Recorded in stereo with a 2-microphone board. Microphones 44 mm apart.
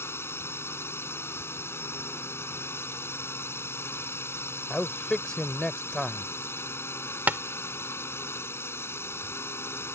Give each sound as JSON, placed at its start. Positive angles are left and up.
{"t": 0.0, "sound": "a drone", "side_deg": 75}
{"t": 4.7, "sound": "a man speaking", "side_deg": 15}
{"t": 7.3, "sound": "tapping", "side_deg": -45}